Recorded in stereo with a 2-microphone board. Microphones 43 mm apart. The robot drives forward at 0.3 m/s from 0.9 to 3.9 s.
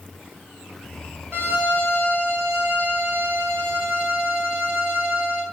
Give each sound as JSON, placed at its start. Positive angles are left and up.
{"t": 1.3, "sound": "a violin", "side_deg": -70, "distance_m": 3.0}